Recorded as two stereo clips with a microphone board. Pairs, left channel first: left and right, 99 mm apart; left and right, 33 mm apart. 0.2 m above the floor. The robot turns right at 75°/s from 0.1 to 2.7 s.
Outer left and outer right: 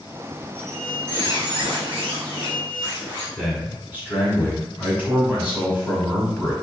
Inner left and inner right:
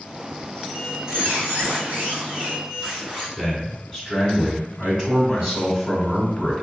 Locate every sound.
0.6 s a squeak: 170° left, 1.8 m; by 3.3 s 30° right, 1.8 m
3.4 s a man speaking: 20° right (ahead or behind), 1.3 m